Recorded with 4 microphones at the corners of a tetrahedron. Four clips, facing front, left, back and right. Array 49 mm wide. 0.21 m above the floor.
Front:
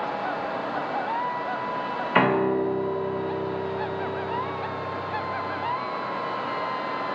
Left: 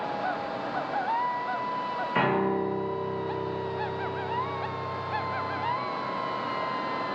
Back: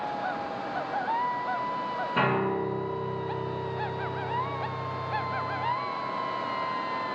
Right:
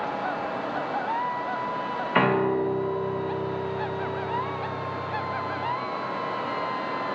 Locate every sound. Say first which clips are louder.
2.1 s a piano: right 4 dB, front 6 dB; 20° right, 3 m